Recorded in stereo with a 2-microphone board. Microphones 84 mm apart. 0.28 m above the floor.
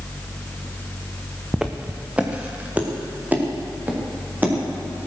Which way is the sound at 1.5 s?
5° right (ahead or behind).